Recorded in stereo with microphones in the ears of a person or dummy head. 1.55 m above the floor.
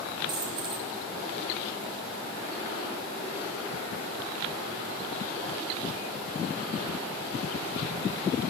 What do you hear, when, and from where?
0.3 s a dropped coin: 30° right (ahead or behind), 1.3 m